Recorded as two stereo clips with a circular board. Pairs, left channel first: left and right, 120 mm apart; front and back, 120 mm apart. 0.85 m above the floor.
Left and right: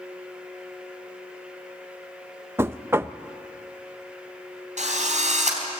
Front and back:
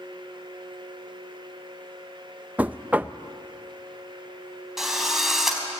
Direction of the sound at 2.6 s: 125° right.